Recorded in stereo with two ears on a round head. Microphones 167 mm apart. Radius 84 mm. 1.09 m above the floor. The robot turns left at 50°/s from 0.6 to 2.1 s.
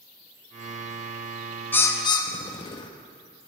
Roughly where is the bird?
Centre.